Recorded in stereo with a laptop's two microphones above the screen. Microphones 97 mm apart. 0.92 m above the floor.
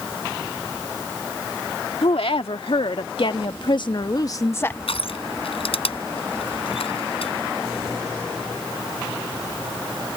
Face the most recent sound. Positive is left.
turn(degrees=75)  # may be behind; listen again after turning